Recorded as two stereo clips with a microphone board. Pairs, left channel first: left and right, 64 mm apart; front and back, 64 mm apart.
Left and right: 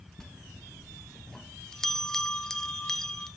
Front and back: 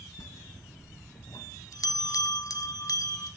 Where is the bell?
10° left, 1.0 m.